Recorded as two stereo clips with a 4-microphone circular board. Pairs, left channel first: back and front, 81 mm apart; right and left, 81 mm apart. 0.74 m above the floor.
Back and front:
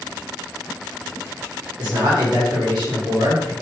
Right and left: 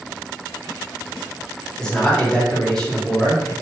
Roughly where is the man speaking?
Ahead.